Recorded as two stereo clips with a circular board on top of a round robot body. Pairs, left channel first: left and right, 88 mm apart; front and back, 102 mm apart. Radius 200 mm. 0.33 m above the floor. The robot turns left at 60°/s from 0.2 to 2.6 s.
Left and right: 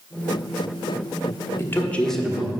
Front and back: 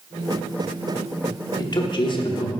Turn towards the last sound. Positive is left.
turn(degrees=-20)